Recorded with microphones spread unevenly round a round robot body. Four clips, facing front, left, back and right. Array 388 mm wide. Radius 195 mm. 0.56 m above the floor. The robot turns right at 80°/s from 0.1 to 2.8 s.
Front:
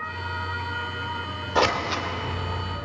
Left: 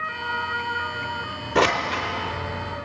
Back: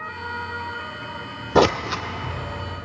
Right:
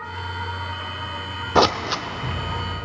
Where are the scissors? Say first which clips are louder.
Right 2 dB, back 5 dB; 170° right, 0.5 m; by 2.9 s 70° right, 0.5 m.